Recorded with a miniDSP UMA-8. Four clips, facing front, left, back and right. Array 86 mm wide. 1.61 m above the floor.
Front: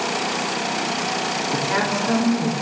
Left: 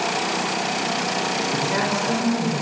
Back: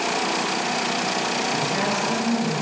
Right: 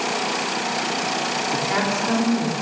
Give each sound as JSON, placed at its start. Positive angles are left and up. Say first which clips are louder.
{"t": 1.5, "sound": "a woman speaking", "louder": "right 1 dB, front 2 dB", "azimuth_deg": -50, "distance_m": 5.0}